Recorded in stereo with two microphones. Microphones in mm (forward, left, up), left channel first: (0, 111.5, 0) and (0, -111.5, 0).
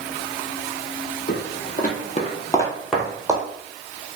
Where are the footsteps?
45° left (ahead or behind), 1.1 m; by 3.5 s 15° right (ahead or behind), 1.0 m.